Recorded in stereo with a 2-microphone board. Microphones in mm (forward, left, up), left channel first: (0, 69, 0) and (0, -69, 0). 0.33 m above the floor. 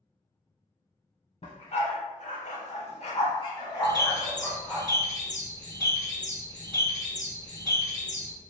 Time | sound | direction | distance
1.4 | a dog barking | 50° left (ahead or behind) | 0.9 m
3.8 | a bird | 25° left (ahead or behind) | 1.6 m